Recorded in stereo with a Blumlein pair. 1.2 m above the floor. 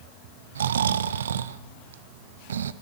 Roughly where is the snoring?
Ahead right.